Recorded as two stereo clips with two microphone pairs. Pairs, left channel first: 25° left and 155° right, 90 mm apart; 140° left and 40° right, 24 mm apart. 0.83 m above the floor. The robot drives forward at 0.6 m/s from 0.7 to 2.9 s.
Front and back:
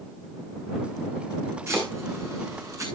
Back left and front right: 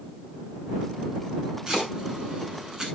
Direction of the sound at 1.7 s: 95° right.